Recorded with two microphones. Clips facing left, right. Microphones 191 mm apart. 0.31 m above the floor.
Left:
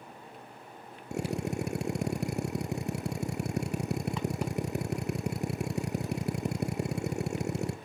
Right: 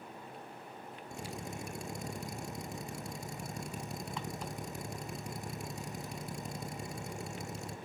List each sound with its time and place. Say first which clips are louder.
1.1 s a drill: left 11 dB; 80° left, 2 m